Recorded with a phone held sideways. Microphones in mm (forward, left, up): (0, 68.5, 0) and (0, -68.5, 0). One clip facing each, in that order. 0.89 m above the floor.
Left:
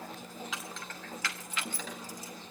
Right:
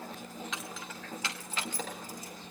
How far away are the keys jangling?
About 2.5 m.